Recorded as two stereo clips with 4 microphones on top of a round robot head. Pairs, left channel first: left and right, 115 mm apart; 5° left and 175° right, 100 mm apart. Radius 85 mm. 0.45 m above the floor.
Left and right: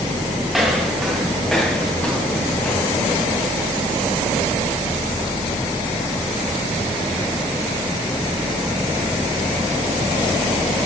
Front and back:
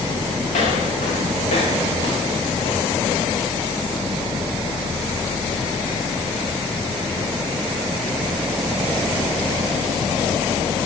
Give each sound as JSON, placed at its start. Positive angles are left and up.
{"t": 0.5, "sound": "footsteps", "azimuth_deg": 0, "distance_m": 4.0}